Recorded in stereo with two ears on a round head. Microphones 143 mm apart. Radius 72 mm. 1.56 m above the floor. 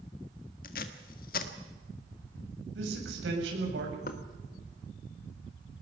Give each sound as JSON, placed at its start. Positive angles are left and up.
{"t": 0.6, "sound": "tape being pulled", "side_deg": 60, "distance_m": 1.6}
{"t": 2.8, "sound": "a man speaking", "side_deg": -85, "distance_m": 7.5}
{"t": 4.1, "sound": "knocking", "side_deg": 55, "distance_m": 1.6}